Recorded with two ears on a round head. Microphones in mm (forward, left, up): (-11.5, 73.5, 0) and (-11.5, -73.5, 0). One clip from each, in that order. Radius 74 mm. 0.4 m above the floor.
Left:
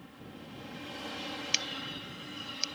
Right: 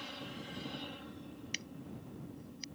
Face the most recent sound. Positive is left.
turn(degrees=80)